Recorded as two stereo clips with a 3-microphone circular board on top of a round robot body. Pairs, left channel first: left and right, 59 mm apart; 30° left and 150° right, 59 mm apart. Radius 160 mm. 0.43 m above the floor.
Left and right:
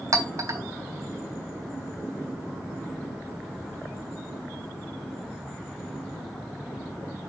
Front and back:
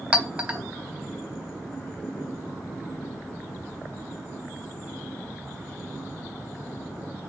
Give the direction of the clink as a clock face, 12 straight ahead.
3 o'clock.